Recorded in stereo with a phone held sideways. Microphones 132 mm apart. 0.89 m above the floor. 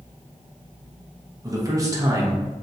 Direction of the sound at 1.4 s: 25° right (ahead or behind).